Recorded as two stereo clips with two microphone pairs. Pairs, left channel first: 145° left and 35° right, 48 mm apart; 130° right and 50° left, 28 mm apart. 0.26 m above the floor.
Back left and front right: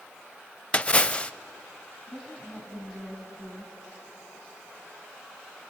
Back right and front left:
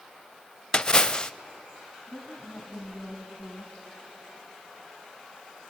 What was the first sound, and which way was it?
A splash, 160° right.